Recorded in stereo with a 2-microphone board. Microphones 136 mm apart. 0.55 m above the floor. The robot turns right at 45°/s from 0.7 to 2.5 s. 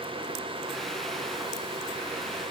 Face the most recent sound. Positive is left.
No sound to turn to.